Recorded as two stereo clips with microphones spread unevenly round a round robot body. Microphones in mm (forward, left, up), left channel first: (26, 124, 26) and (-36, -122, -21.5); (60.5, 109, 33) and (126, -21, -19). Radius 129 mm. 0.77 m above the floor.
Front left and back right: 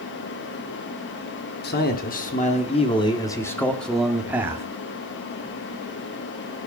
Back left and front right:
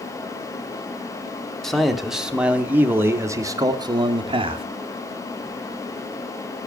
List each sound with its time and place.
1.6 s a man speaking: 20° left, 2.5 m; by 4.7 s 30° right, 2 m